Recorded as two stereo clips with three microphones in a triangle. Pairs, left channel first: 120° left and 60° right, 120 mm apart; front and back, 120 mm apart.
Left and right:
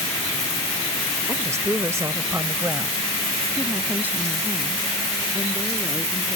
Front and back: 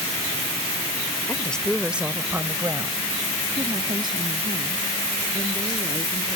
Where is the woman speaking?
45° right; by 6.4 s 140° right.